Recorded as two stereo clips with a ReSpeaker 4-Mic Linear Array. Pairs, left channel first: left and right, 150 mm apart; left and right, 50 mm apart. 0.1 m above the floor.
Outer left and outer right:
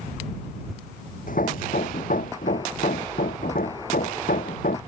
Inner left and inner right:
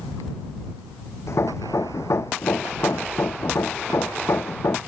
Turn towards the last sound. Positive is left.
turn(degrees=65)  # may be behind; listen again after turning